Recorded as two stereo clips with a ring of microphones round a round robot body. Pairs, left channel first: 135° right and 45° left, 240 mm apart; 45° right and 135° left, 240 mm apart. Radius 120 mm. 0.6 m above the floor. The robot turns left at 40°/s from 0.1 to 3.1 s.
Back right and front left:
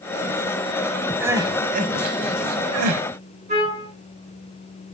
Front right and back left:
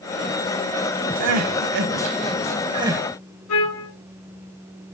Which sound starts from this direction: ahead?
A trumpet, at 3.5 s.